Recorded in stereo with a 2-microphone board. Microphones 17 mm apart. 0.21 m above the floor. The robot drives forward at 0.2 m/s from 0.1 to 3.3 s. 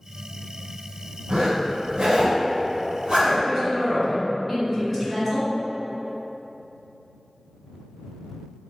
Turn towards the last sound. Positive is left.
turn(degrees=-15)  # may be behind; listen again after turning